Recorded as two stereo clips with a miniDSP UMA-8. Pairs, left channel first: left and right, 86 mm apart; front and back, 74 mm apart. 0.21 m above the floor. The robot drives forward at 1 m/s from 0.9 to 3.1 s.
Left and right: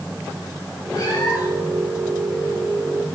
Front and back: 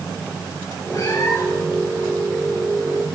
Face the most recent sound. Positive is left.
turn(degrees=60)